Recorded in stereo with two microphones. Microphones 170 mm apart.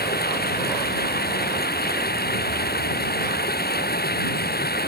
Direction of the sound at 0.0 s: 70° left (ahead or behind).